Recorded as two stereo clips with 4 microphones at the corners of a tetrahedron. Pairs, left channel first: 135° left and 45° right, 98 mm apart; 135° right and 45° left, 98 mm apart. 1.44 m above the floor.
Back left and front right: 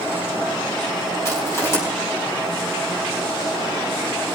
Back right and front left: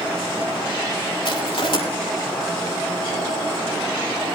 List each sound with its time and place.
1.2 s crushing: 165° right, 4 m